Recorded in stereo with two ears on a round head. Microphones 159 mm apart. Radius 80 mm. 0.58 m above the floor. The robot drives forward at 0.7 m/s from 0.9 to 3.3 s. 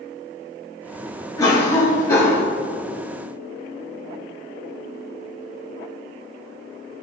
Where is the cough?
20° left (ahead or behind), 1.2 m; by 2.5 s 15° left (ahead or behind), 1.4 m.